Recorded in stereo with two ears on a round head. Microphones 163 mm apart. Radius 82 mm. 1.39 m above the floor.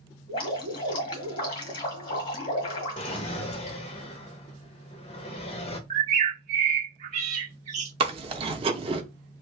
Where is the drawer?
35° left (ahead or behind), 0.6 m.